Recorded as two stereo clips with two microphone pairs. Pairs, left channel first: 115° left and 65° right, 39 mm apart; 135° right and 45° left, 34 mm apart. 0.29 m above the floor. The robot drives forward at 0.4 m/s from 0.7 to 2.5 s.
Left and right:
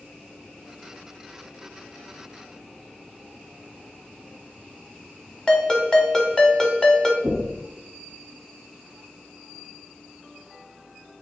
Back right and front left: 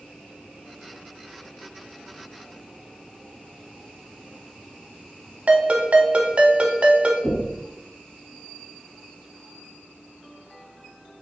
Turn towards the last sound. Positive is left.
turn(degrees=-120)